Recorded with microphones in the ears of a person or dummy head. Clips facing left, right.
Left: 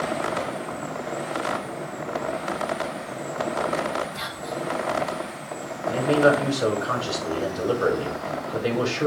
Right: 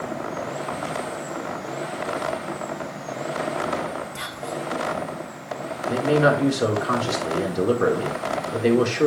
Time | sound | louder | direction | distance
4.2 | whispering | even | 50° right (ahead or behind) | 2 m
5.9 | a man speaking | even | 65° right (ahead or behind) | 4 m